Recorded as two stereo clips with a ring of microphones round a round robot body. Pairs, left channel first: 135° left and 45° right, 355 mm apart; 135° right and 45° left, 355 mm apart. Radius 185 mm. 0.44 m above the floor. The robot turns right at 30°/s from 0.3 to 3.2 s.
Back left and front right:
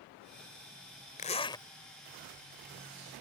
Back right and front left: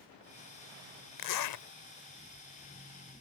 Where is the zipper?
160° right; by 1.6 s 145° right.